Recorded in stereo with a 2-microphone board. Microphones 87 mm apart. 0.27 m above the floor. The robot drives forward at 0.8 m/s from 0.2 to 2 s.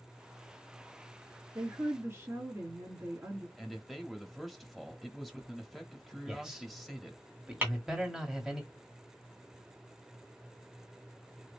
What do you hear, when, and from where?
1.6 s a woman speaking: 25° right (ahead or behind), 2.5 m; by 3.5 s 20° right (ahead or behind), 2.5 m
3.6 s a man speaking: centre (ahead or behind), 0.9 m
6.3 s a man speaking: 5° right (ahead or behind), 1.7 m
7.6 s tapping: 25° right (ahead or behind), 2 m